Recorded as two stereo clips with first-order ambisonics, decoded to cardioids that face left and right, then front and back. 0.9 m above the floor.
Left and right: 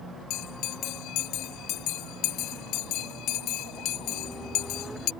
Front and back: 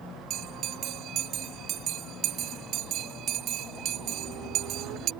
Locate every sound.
0.3 s a bell: 130° left